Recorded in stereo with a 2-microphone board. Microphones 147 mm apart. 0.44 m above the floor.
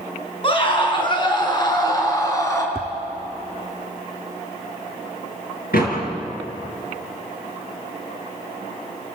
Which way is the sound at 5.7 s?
85° left.